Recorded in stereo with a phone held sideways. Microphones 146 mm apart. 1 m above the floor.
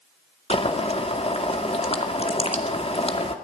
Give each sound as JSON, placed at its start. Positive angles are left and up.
{"t": 0.5, "sound": "boiling", "side_deg": 45, "distance_m": 2.0}